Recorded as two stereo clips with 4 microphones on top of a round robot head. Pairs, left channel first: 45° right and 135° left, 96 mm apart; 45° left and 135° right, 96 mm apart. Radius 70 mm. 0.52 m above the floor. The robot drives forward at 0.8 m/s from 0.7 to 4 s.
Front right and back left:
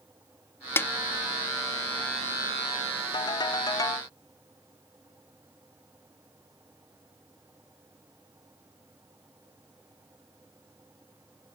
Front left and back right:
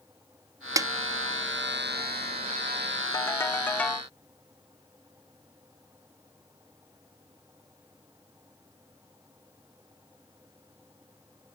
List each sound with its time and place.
0.8 s a snare drum: 100° right; by 0.9 s 110° right
3.1 s a ringtone: 10° right; by 4.1 s 30° right